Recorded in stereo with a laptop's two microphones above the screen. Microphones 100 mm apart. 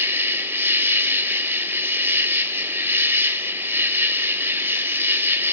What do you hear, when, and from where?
0.0 s an insect: 20° right (ahead or behind), 1.8 m